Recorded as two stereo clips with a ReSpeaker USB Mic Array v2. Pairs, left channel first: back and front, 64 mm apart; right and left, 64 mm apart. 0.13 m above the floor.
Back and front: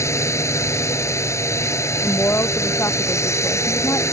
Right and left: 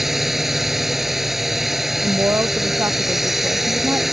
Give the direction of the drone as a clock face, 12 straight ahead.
6 o'clock.